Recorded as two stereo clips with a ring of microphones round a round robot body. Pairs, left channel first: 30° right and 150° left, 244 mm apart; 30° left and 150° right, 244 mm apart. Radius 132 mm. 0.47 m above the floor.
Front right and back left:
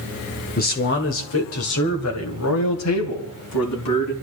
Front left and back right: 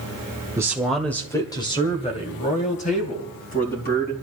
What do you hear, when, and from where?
0.6 s a man speaking: 75° right, 1.2 m; by 4.1 s 25° right, 4 m